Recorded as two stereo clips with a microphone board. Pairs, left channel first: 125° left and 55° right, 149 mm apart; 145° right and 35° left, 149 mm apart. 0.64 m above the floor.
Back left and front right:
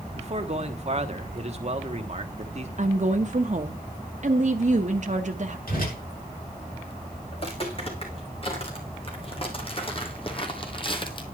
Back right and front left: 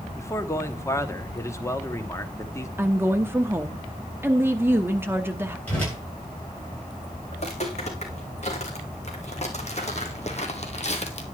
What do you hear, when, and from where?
0.1 s a man speaking: 80° right, 1.3 m
2.8 s a woman speaking: 40° right, 0.8 m
5.7 s a whoosh: 135° left, 8 m
7.3 s footsteps: 175° left, 3.5 m